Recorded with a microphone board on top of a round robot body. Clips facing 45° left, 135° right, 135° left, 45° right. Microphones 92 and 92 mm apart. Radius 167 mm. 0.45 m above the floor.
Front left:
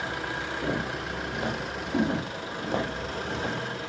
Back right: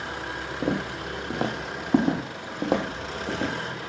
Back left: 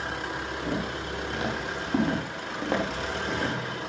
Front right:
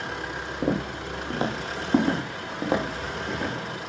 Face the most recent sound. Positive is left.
turn(degrees=-135)